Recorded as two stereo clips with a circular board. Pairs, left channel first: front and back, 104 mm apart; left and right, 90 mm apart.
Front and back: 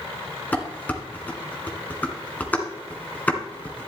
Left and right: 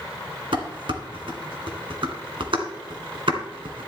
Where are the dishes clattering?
75° right, 2 m.